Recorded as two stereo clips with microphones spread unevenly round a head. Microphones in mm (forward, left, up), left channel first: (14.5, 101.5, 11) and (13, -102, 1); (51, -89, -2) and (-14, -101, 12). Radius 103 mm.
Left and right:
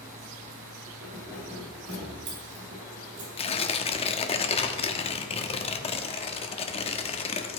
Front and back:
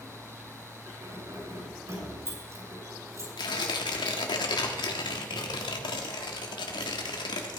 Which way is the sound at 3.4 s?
25° left.